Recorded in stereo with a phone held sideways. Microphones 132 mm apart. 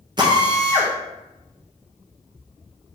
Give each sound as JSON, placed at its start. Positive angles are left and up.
{"t": 0.2, "sound": "a drill", "side_deg": -35, "distance_m": 0.9}